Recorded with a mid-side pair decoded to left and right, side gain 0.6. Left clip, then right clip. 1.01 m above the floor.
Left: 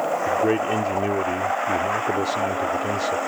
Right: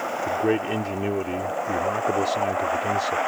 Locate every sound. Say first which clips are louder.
0.3 s a man speaking: left 1 dB; straight ahead